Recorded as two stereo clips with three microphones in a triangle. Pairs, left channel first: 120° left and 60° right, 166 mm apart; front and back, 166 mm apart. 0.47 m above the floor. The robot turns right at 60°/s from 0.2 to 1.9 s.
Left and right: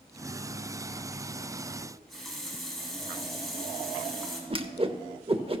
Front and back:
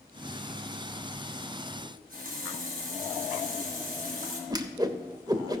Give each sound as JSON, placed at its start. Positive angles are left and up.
{"t": 1.8, "sound": "a running tap", "azimuth_deg": -155, "distance_m": 2.5}
{"t": 4.5, "sound": "a whoosh", "azimuth_deg": -115, "distance_m": 0.7}